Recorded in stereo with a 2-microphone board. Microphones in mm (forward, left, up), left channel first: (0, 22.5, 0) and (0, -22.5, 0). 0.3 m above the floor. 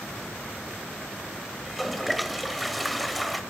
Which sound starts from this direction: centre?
A toilet flushing, at 1.6 s.